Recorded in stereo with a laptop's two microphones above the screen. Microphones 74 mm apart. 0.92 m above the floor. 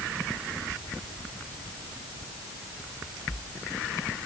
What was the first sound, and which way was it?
Only background noise.